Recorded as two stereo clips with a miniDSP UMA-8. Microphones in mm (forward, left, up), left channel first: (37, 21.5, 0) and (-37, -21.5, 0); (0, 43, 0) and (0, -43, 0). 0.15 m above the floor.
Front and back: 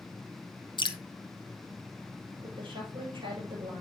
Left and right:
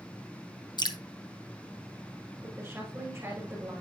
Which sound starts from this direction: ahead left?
Dripping, at 0.8 s.